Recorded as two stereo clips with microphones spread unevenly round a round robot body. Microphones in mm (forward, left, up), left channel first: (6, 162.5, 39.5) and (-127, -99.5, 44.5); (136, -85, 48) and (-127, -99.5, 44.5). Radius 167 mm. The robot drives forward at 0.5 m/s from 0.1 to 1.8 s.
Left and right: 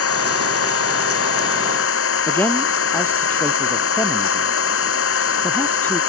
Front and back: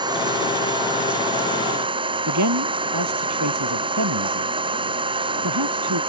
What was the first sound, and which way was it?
An engine running, 105° left.